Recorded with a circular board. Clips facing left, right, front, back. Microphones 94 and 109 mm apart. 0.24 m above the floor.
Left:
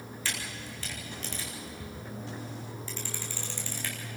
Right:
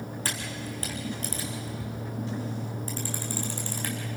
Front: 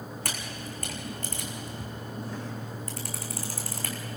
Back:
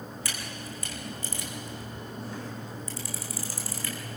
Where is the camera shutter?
40° right, 3.5 m.